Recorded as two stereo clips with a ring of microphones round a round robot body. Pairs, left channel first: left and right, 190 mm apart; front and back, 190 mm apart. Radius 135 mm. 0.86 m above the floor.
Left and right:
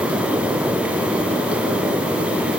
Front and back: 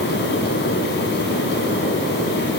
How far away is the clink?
I don't hear a clink.